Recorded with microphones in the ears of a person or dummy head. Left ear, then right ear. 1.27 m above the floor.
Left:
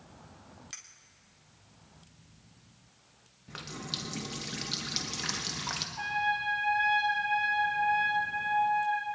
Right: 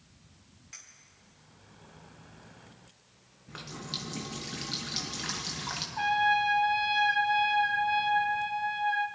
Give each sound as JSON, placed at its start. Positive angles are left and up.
{"t": 0.7, "sound": "a clink", "side_deg": 30, "distance_m": 1.7}
{"t": 3.5, "sound": "a running tap", "side_deg": 10, "distance_m": 1.1}
{"t": 6.0, "sound": "a trumpet", "side_deg": -45, "distance_m": 2.5}